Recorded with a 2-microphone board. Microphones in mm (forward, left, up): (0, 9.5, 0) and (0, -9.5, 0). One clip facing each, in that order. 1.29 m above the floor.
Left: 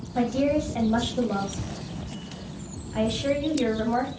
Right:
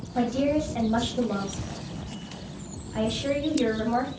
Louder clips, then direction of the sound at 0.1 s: Left 1 dB; 5° left (ahead or behind).